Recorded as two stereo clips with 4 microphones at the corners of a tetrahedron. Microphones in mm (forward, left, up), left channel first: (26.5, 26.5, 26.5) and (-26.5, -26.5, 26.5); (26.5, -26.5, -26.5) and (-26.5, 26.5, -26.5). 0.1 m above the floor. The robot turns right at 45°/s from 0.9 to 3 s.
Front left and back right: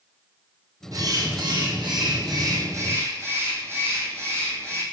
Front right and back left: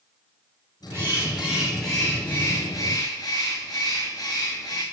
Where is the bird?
175° right, 2.5 m; by 4.8 s 80° right, 2.5 m.